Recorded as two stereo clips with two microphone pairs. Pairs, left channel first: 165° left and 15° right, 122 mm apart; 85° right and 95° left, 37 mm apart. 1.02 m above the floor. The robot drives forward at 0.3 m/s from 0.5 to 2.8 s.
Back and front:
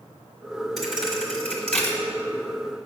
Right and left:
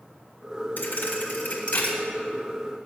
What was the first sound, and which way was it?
A thud, 105° right.